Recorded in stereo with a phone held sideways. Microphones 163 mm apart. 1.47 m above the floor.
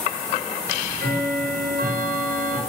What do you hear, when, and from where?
0.6 s ticking: 65° right (ahead or behind), 1.2 m